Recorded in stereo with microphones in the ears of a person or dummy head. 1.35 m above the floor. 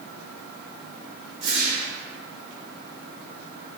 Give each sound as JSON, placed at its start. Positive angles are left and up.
{"t": 1.4, "sound": "a whoosh", "side_deg": -35, "distance_m": 0.7}